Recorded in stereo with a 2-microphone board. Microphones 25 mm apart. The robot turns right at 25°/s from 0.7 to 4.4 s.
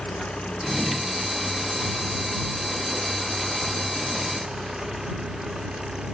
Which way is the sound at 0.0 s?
110° left.